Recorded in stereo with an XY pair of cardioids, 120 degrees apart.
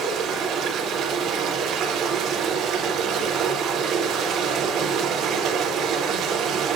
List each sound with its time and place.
0.0 s running water: 65° right, 3.5 m